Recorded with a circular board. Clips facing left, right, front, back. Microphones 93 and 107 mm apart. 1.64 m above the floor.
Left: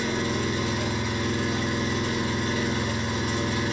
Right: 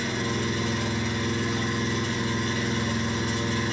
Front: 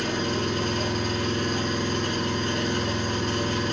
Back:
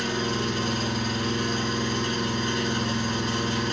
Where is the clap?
I don't hear a clap.